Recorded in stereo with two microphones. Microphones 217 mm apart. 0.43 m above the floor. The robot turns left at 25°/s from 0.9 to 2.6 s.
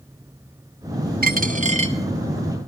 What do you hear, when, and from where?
1.2 s a dropped coin: 45° right (ahead or behind), 1.5 m; by 2.0 s 25° right (ahead or behind), 1.5 m